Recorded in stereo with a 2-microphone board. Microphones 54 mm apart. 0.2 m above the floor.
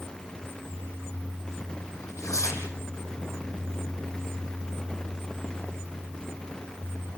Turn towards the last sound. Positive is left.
turn(degrees=80)